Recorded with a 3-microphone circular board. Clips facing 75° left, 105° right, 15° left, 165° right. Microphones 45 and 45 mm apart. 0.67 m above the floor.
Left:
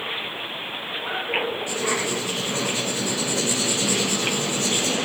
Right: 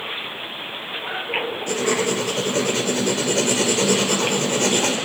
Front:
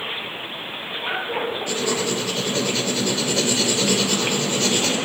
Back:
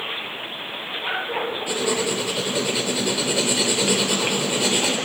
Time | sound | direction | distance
1.7 | writing | 90° right | 2 m